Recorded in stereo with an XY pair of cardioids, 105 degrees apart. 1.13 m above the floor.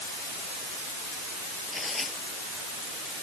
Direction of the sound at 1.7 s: 15° left.